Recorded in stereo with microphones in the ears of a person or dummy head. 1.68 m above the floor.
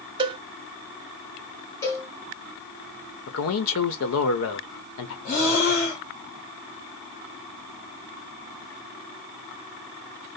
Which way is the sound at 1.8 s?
15° left (ahead or behind).